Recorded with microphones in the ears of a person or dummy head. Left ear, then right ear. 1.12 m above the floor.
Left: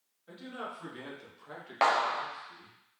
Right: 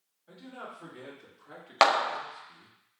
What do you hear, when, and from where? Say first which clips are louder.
0.3 s a man speaking: left 3 dB; 15° left (ahead or behind), 2 m; by 2.8 s 45° right (ahead or behind), 0.5 m
1.8 s a clap: right 3 dB; 55° right (ahead or behind), 0.5 m